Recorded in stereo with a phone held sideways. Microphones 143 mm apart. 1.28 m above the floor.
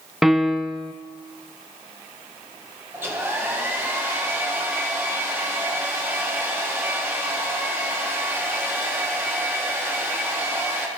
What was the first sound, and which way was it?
A piano, centre (ahead or behind).